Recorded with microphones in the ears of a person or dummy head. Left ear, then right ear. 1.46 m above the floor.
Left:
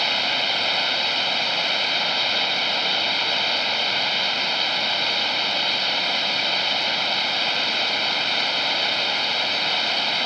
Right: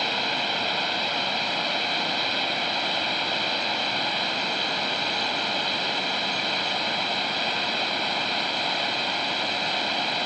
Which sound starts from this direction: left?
Running water, at 0.0 s.